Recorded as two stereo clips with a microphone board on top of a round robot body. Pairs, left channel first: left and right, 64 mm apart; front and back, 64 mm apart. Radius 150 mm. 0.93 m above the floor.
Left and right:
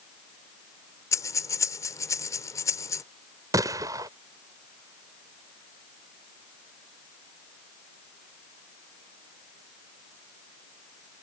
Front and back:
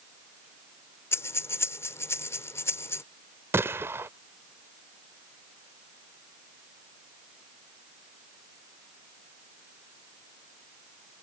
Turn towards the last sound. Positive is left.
turn(degrees=-125)